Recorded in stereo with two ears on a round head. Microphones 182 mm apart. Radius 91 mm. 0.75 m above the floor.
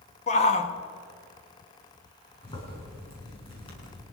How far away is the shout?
About 1.2 m.